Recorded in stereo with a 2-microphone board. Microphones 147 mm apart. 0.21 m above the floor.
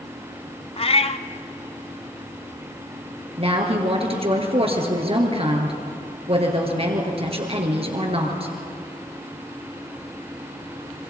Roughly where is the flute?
I don't hear a flute.